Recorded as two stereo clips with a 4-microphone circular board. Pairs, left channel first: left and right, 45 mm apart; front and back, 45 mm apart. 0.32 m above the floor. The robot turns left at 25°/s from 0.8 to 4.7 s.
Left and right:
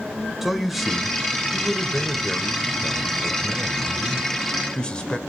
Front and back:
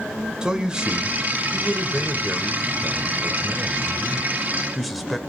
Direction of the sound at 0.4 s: 165° right.